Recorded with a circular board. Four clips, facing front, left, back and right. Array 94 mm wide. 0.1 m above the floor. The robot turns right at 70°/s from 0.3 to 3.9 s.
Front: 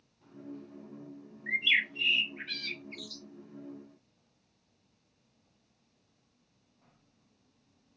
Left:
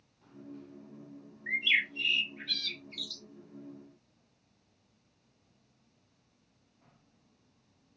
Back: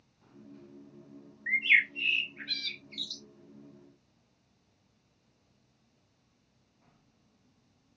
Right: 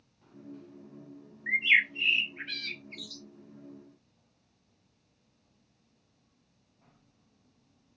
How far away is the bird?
About 0.7 m.